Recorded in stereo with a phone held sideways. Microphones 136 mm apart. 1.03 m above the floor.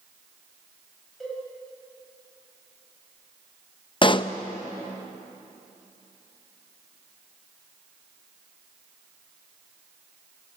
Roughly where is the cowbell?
Centre.